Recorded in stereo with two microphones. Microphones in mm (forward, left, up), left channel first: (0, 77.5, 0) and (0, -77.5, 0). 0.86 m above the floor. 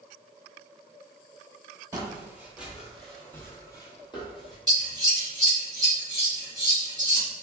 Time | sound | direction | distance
1.9 | footsteps | 20° right (ahead or behind) | 1.1 m
4.7 | scissors | 25° right (ahead or behind) | 1.3 m